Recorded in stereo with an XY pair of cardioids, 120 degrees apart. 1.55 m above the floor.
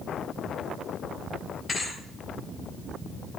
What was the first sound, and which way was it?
A thud, 10° left.